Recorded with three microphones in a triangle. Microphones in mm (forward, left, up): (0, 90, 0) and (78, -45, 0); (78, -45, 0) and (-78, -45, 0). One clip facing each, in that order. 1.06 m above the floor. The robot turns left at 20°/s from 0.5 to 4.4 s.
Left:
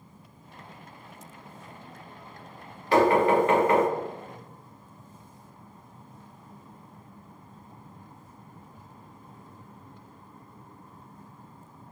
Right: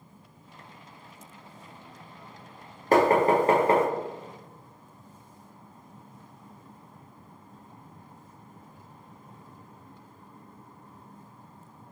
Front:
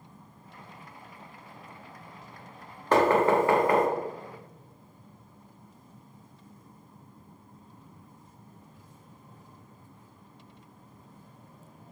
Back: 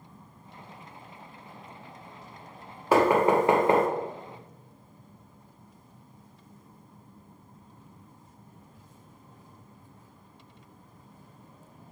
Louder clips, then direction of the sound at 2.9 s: Even, back 1 dB; 100° right.